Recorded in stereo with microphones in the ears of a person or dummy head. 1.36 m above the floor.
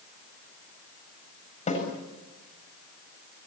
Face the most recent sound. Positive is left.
turn(degrees=35)  # may be behind; listen again after turning